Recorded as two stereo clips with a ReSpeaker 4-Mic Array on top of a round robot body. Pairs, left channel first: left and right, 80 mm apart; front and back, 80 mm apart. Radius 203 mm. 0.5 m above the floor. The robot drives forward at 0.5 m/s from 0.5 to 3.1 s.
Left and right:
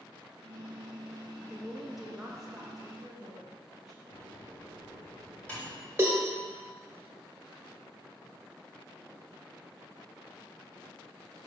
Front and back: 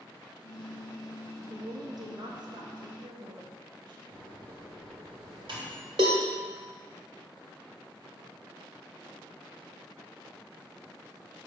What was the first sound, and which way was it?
A woman speaking, straight behind.